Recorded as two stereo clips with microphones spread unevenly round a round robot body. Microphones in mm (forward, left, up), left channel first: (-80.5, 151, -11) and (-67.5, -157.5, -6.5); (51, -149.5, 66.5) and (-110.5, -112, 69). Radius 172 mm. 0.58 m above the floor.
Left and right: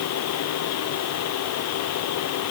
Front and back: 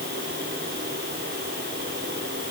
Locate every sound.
Only background noise.